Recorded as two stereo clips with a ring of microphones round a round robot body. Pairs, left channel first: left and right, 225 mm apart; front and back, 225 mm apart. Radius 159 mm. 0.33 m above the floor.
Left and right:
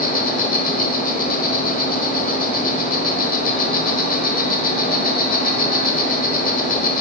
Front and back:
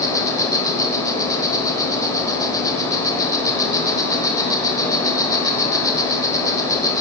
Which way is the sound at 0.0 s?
65° left.